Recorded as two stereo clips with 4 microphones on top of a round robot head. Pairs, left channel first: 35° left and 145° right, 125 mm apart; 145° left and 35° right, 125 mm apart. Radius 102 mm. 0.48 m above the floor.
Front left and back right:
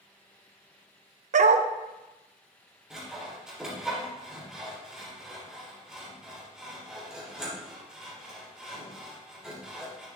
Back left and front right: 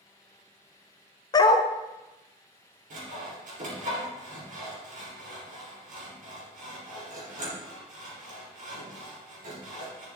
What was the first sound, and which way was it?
A dog barking, 160° right.